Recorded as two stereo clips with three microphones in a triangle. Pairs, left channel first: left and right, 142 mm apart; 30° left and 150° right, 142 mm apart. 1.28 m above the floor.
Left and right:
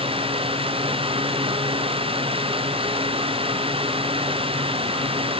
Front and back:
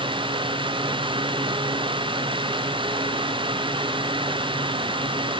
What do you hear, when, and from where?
Only background noise.